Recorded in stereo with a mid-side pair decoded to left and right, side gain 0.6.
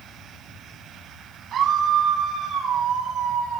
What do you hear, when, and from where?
1.5 s a scream: 60° right, 9 m; by 3.6 s 65° right, 7 m